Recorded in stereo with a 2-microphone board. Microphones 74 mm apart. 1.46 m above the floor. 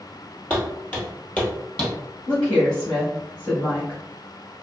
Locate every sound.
0.5 s footsteps: 20° left (ahead or behind), 1.6 m; by 1.9 s 15° left (ahead or behind), 1.7 m
2.3 s a woman speaking: 15° left (ahead or behind), 1.6 m